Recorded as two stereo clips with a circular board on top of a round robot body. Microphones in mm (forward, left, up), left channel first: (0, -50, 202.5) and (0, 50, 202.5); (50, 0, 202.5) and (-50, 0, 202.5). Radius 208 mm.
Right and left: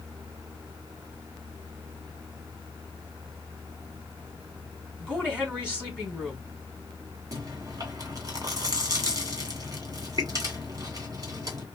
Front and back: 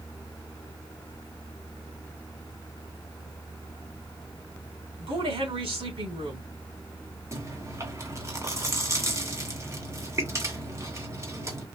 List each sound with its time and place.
5.0 s a woman speaking: 170° left, 3.5 m
7.3 s chewing: 130° left, 2 m